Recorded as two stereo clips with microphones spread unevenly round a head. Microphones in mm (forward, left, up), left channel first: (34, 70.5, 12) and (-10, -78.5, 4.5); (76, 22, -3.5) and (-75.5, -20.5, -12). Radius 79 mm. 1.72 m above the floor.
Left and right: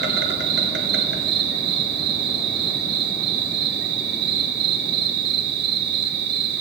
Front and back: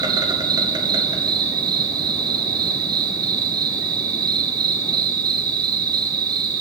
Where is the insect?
100° right, 2 m.